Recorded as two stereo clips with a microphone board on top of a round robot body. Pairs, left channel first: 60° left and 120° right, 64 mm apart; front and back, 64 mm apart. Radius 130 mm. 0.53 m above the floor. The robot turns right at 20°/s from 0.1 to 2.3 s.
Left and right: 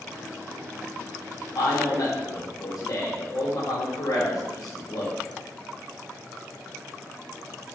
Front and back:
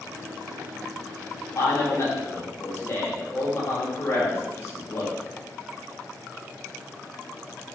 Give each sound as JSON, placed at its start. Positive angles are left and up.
{"t": 1.6, "sound": "a man speaking", "azimuth_deg": 35, "distance_m": 2.5}